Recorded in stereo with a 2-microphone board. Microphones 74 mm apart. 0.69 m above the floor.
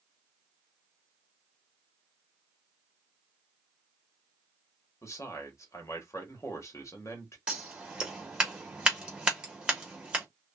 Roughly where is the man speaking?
Left.